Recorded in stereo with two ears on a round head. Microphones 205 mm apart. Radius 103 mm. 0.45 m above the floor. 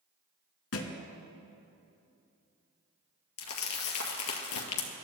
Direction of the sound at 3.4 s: 70° left (ahead or behind).